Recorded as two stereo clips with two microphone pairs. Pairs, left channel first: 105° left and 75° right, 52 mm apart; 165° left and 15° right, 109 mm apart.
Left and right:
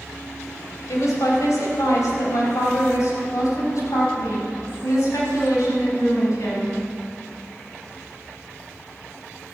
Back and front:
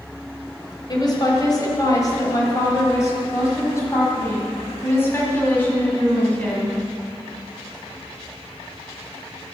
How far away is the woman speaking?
About 4 m.